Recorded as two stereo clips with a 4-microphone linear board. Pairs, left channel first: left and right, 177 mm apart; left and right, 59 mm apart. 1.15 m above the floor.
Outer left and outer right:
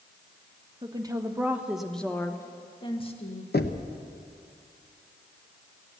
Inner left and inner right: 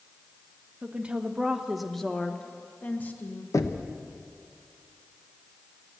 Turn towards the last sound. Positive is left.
turn(degrees=70)  # may be behind; listen again after turning